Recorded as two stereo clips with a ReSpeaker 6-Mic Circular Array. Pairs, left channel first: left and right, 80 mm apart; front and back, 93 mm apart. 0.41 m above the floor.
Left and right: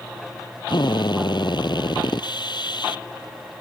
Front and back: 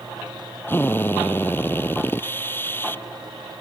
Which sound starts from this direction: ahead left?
A drill, at 0.7 s.